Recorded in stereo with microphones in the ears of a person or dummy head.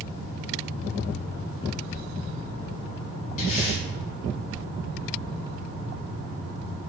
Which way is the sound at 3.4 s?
40° left (ahead or behind).